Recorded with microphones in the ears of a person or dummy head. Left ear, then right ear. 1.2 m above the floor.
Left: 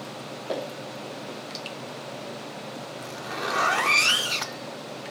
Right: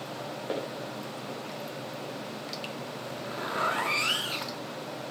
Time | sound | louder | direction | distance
0.5 | footsteps | left 4 dB | 10° right (ahead or behind) | 4 m
3.0 | a zipper | left 6 dB | 25° left (ahead or behind) | 0.9 m